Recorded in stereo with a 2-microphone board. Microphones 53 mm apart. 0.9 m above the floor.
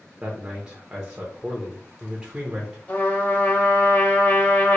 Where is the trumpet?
35° left (ahead or behind), 1.4 m.